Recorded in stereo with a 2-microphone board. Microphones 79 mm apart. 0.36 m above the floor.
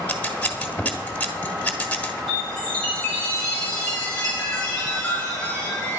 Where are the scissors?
15° left (ahead or behind), 1.7 m.